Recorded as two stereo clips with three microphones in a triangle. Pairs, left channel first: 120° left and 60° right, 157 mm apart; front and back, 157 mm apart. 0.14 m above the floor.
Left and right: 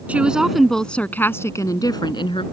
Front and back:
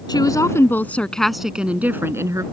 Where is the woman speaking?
10° left; by 2.4 s 130° left.